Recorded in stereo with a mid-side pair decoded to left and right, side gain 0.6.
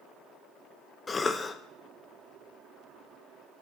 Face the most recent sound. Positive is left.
turn(degrees=25)